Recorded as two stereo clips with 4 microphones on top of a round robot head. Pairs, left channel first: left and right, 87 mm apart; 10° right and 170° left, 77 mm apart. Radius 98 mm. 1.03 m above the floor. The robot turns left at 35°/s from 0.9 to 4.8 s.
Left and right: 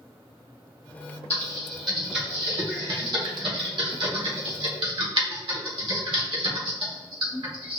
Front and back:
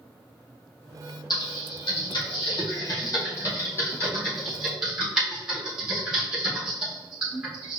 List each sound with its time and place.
1.3 s typing on a keyboard: 15° left, 1.8 m; by 7.8 s 105° right, 1.8 m